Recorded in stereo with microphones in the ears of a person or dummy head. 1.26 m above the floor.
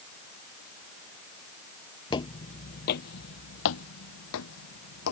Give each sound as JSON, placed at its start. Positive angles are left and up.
{"t": 2.1, "sound": "footsteps", "side_deg": 20}